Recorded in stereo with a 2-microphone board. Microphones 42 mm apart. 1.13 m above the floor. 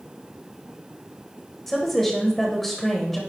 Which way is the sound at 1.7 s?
10° left (ahead or behind).